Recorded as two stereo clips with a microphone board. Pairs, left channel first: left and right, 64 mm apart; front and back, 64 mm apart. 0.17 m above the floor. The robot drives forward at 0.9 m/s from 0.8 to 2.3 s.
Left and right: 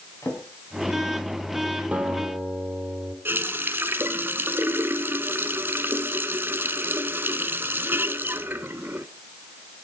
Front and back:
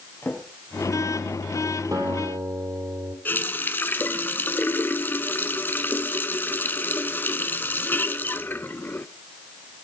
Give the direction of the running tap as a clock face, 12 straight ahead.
2 o'clock.